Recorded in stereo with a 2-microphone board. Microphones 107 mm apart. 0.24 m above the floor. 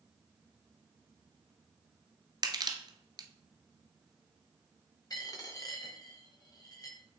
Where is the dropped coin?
35° left (ahead or behind), 2 m.